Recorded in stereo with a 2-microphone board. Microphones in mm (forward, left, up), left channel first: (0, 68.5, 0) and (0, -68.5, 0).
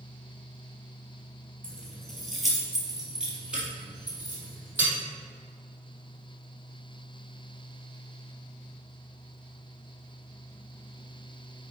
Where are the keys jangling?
5° left (ahead or behind), 2 m; by 4.9 s 15° right (ahead or behind), 3.5 m.